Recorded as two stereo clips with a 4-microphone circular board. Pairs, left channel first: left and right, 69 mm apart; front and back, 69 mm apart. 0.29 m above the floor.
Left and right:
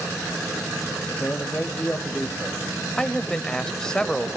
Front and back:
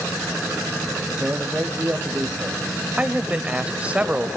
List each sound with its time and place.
1.1 s a man speaking: 140° left, 1.1 m
3.0 s a man speaking: 150° left, 0.9 m